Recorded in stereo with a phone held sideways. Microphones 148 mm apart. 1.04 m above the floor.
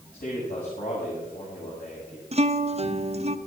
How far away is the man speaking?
About 7 m.